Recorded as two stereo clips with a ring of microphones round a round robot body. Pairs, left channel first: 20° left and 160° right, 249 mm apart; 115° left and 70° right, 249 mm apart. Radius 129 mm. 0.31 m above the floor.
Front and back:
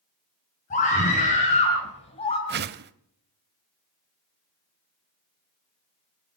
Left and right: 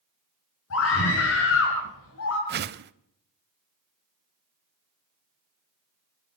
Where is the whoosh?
115° right, 0.7 m.